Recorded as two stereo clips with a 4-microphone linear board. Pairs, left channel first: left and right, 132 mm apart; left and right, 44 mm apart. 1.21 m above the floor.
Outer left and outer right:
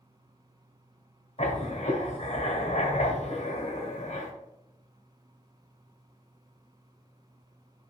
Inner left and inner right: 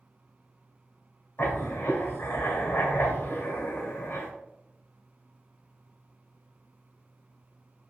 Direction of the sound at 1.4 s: 55° left (ahead or behind).